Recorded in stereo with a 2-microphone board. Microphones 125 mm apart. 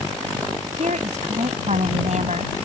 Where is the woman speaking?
70° right (ahead or behind).